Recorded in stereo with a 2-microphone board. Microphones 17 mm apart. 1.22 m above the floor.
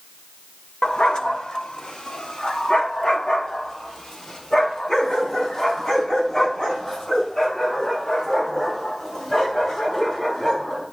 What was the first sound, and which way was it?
A dog barking, 45° left (ahead or behind).